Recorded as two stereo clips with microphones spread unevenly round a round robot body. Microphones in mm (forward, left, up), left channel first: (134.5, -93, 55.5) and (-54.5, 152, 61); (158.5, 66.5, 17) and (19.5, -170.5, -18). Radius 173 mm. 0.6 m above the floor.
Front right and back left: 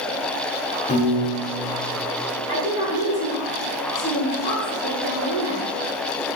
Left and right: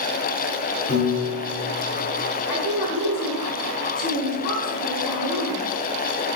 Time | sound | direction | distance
0.9 | a piano | 5° left | 2.5 m
2.5 | a woman speaking | 90° left | 4 m